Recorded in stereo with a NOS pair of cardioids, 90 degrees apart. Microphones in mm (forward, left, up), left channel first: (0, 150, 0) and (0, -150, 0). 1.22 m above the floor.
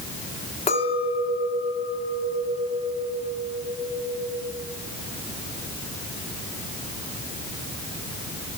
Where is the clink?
20° left, 2 m.